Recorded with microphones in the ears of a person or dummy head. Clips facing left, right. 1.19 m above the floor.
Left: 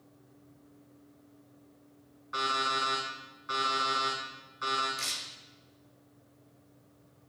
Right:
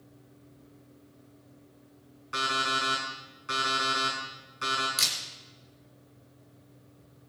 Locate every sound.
2.3 s an alarm clock: 35° right (ahead or behind), 5 m
5.0 s a camera shutter: 75° right (ahead or behind), 5 m